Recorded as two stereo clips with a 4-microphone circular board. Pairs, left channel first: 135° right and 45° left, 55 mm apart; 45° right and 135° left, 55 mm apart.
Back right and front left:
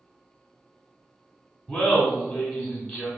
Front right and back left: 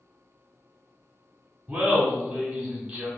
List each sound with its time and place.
1.7 s laughter: 170° left, 1.0 m